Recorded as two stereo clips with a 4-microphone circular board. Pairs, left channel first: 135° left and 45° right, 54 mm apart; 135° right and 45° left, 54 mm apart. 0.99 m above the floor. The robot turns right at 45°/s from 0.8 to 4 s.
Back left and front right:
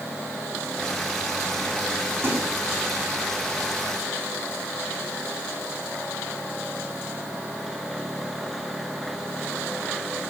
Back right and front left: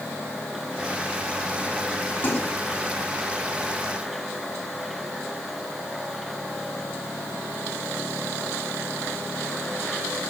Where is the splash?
80° right, 4 m; by 2.5 s 70° right, 4 m.